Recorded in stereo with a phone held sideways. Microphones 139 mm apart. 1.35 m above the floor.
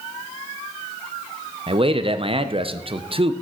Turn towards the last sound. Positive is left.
turn(degrees=-40)  # may be behind; listen again after turning